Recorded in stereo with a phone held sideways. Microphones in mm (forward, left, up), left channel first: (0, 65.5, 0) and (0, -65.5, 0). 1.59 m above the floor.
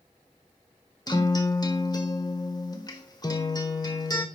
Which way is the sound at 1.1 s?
30° left (ahead or behind).